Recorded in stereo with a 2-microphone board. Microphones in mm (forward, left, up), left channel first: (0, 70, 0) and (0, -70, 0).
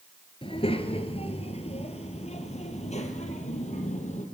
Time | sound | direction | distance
0.4 | a child speaking | 40° left (ahead or behind) | 2.5 m